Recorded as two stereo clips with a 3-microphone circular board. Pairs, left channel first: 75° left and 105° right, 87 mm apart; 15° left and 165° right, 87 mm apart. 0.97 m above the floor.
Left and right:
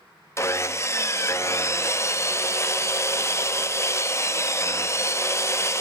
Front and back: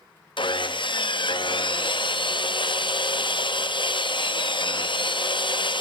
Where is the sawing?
20° left, 0.5 m.